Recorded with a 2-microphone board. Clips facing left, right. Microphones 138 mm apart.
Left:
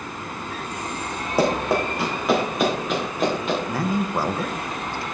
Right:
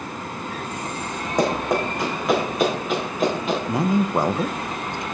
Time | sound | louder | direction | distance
1.4 | running footsteps | left 1 dB | 10° left (ahead or behind) | 4 m
3.7 | a man speaking | right 3 dB | 20° right (ahead or behind) | 0.5 m